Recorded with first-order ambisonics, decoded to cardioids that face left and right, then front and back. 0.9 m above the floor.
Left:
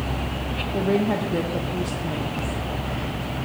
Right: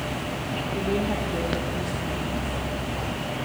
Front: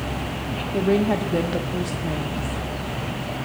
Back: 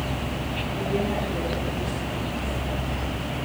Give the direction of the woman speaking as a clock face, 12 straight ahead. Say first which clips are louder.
Left 5 dB, front 7 dB; 11 o'clock.